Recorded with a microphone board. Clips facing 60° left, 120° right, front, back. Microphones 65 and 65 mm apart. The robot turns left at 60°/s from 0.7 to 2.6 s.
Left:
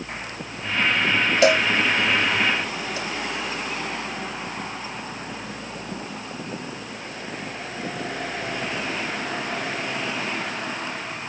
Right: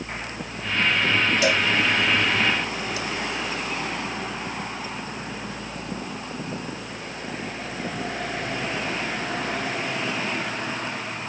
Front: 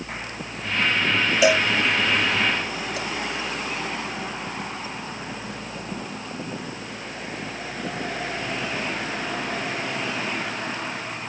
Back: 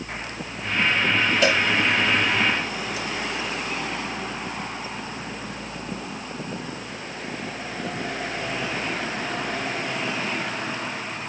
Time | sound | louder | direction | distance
1.4 | a cowbell | left 3 dB, front 4 dB | 80° left | 0.8 m